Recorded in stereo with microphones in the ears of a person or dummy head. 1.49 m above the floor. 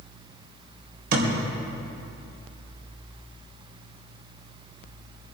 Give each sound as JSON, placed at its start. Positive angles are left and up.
{"t": 1.1, "sound": "a thud", "side_deg": -55, "distance_m": 3.5}